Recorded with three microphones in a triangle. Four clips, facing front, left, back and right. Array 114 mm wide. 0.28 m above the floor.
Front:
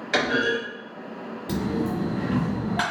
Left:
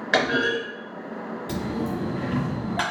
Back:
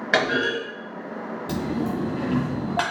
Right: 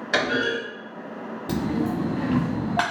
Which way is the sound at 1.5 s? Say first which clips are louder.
Right 4 dB, front 1 dB; 125° right.